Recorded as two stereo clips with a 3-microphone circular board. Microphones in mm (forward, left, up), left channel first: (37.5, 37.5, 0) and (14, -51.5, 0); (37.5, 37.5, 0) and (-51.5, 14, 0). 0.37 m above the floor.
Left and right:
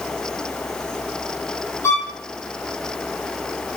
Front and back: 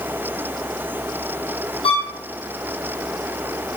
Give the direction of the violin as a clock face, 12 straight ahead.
12 o'clock.